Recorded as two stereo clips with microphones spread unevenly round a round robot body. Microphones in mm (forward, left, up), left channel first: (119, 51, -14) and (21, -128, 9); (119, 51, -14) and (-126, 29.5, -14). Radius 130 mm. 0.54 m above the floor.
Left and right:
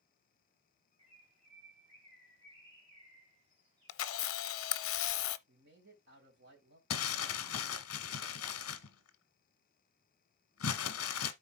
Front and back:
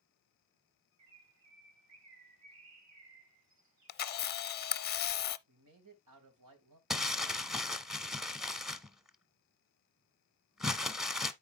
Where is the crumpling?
95° left, 1.0 m.